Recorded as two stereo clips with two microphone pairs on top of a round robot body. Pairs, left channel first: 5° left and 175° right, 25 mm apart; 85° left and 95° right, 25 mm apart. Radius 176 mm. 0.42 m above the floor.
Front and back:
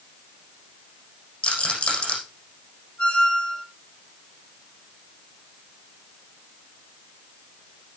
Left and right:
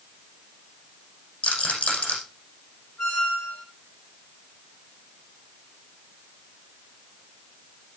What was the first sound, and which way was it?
A rattle, 40° left.